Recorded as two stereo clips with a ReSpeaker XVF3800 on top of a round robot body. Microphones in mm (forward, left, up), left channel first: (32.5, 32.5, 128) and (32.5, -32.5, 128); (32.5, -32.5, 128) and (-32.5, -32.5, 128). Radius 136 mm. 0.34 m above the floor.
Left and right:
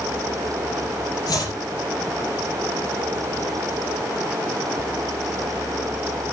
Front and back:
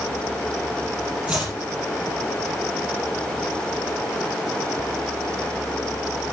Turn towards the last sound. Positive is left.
turn(degrees=105)